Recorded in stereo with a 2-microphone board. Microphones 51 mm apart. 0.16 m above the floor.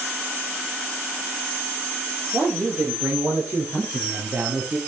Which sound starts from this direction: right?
A man speaking, at 2.3 s.